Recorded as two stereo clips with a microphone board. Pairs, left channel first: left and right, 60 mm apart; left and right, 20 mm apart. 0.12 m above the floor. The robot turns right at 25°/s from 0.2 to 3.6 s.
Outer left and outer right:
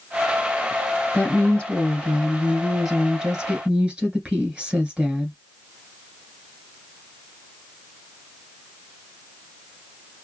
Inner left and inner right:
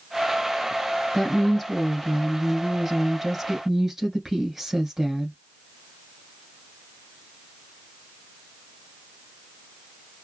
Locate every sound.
1.1 s a woman speaking: 140° left, 1.5 m; by 5.3 s 160° right, 1.5 m